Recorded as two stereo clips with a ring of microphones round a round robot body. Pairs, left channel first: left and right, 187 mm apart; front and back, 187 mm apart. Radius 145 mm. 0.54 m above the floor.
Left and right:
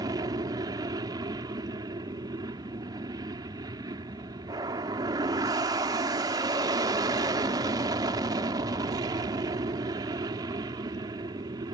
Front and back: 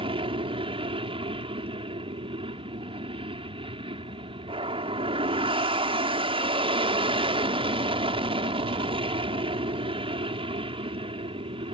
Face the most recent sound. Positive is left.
turn(degrees=-145)